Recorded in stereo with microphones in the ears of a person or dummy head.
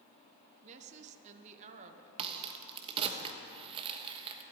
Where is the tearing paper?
No tearing paper in this recording.